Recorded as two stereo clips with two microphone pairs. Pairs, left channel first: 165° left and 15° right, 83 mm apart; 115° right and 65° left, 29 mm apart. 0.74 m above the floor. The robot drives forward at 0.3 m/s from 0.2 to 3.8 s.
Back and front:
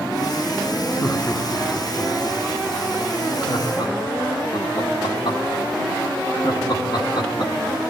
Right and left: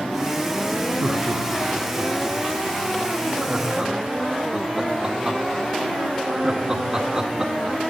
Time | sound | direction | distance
1.0 | laughter | 105° left | 1.3 m